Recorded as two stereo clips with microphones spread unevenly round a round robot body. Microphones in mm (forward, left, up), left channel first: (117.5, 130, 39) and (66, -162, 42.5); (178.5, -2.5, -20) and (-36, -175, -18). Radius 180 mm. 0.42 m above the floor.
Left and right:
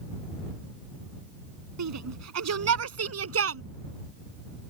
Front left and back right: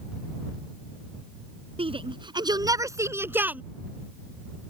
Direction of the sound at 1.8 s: 70° right.